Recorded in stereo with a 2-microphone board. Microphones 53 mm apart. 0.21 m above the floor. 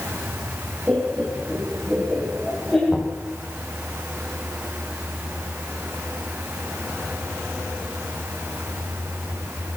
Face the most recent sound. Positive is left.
turn(degrees=0)  # may be behind; listen again after turning